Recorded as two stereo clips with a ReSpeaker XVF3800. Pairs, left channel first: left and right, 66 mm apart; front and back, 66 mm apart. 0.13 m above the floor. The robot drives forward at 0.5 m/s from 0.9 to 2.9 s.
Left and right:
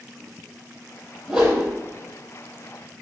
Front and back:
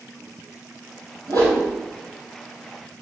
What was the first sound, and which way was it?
A whoosh, 165° right.